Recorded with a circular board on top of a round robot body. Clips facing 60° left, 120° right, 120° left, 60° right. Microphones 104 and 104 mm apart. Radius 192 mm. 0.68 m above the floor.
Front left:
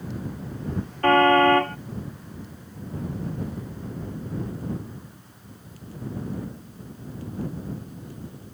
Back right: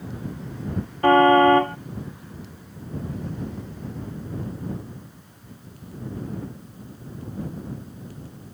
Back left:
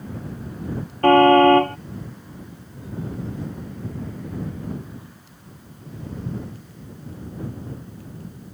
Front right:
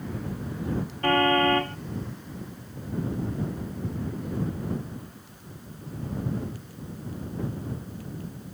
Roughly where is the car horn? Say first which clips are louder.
Back right 2 dB, back left 10 dB; behind.